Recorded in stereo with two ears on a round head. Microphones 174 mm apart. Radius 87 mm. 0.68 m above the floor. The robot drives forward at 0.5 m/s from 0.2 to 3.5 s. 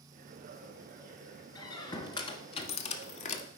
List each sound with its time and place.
1.6 s a squeak: 20° left (ahead or behind), 1.2 m; by 3.5 s 40° left (ahead or behind), 0.7 m